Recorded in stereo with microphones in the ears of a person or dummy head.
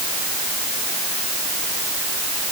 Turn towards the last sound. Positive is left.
No sound to turn to.